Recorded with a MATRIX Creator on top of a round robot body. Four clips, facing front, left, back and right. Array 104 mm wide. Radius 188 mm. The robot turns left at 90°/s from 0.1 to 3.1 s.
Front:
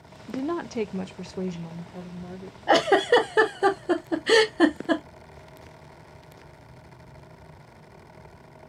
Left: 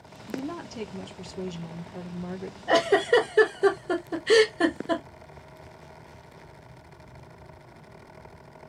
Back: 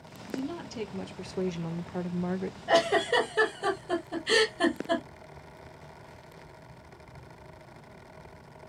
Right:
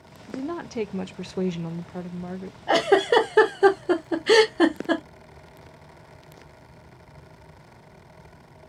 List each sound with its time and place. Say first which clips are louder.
0.3 s a woman speaking: right 3 dB, front 6 dB; 5° left, 0.6 m; by 2.6 s 160° left, 0.6 m
2.7 s a giggle: right 2 dB, front 6 dB; 15° right, 1.1 m; by 5.0 s 55° right, 1.1 m